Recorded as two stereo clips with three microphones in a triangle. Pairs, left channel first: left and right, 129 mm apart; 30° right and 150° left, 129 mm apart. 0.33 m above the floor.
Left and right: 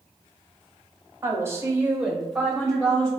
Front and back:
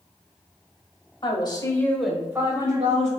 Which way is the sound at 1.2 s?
30° right.